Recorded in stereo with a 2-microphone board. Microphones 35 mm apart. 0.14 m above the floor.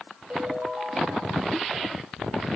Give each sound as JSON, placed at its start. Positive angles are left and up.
{"t": 0.3, "sound": "a ringtone", "side_deg": -30, "distance_m": 10.0}